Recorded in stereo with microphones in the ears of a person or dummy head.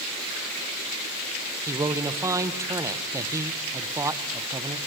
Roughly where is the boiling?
No boiling in this recording.